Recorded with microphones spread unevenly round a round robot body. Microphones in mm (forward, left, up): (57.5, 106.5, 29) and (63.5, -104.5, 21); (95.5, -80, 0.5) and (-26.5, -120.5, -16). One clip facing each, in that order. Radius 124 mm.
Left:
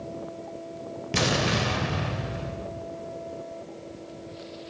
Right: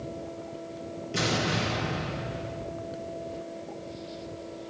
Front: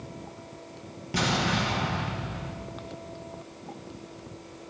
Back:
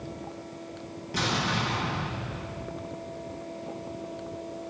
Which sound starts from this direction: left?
An explosion, at 1.1 s.